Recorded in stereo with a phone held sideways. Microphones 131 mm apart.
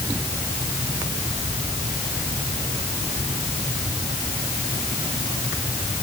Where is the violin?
No violin in this recording.